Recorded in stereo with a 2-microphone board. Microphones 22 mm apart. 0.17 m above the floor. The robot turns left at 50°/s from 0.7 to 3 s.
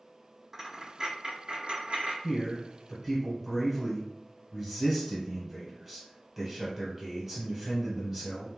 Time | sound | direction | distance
0.5 | a dropped coin | 25° right (ahead or behind) | 0.8 m
2.2 | a man speaking | 10° left | 1.3 m